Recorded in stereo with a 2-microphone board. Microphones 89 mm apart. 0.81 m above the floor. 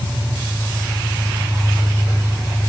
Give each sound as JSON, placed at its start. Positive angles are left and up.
{"t": 0.0, "sound": "an engine running", "side_deg": 65, "distance_m": 8.0}